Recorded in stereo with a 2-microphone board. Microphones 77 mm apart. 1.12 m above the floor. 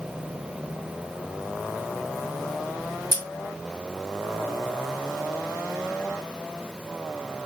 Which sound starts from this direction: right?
Scissors, at 3.1 s.